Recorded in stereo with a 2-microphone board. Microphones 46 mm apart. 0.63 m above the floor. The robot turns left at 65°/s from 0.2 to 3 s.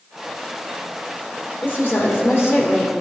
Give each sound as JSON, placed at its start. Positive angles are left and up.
{"t": 1.6, "sound": "a woman speaking", "azimuth_deg": 125, "distance_m": 1.6}